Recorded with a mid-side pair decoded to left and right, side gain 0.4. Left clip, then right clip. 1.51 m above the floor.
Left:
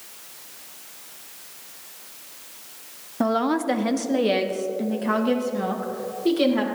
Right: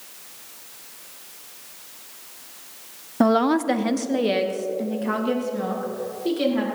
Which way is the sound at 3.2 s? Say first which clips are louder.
Right 3 dB; 40° right.